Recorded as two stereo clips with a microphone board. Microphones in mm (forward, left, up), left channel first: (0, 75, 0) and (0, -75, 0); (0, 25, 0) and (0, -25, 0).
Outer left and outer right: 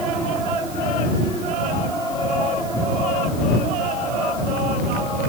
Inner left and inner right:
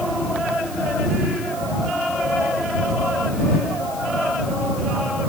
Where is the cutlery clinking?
I don't hear cutlery clinking.